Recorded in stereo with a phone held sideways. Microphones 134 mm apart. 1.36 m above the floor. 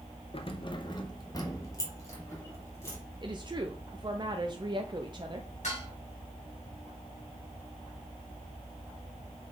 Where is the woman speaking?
35° right (ahead or behind), 0.6 m.